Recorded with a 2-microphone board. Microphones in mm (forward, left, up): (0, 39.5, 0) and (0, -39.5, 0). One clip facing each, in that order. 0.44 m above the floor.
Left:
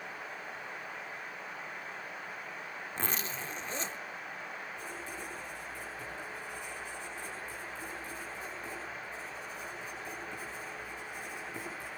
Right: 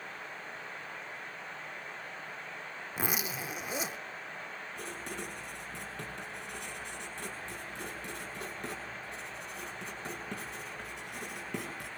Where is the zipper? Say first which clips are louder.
Right 3 dB; 10° right (ahead or behind), 0.7 m.